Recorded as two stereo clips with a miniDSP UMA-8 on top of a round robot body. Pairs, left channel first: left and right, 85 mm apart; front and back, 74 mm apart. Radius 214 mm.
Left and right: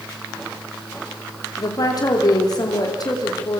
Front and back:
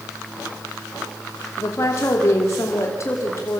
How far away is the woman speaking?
About 3 m.